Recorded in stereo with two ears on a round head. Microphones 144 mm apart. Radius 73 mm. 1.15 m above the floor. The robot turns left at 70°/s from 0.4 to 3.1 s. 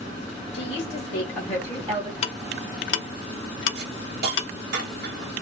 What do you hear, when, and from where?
0.5 s a woman speaking: 90° left, 1.9 m; by 2.1 s 20° right, 1.9 m
2.2 s ticking: 40° left (ahead or behind), 0.7 m; by 4.5 s 80° left, 0.7 m
3.8 s a hiss: 75° right (ahead or behind), 2 m